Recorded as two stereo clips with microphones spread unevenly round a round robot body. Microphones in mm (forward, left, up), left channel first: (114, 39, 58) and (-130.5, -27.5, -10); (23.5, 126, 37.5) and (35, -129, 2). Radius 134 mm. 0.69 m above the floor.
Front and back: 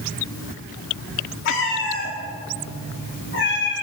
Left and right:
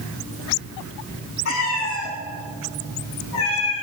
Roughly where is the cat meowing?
Ahead left.